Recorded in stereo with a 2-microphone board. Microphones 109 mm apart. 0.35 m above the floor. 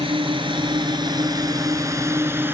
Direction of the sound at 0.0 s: 55° right (ahead or behind).